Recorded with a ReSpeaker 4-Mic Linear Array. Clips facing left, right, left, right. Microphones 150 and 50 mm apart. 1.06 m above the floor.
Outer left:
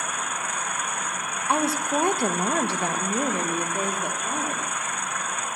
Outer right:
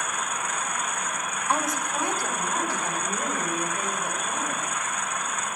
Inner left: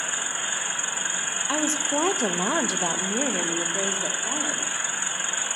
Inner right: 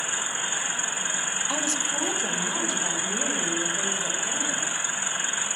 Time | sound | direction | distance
1.5 | a woman speaking | 15° left (ahead or behind) | 0.6 m